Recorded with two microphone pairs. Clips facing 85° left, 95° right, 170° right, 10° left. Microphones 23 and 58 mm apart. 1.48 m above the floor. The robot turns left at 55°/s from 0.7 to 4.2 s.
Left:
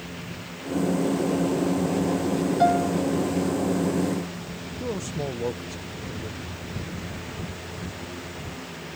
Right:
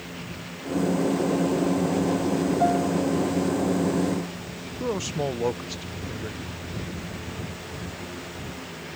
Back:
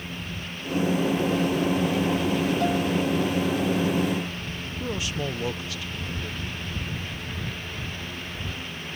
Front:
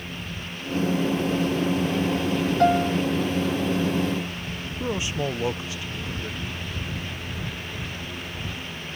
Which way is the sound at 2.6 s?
40° left.